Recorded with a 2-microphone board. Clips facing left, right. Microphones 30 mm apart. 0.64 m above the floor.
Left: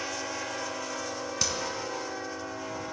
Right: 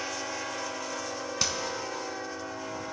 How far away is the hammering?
About 2 m.